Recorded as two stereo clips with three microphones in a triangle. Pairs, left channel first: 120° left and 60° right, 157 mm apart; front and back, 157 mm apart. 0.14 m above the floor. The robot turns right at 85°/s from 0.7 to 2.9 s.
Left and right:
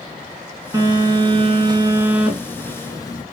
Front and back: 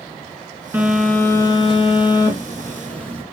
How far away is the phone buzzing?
About 0.7 m.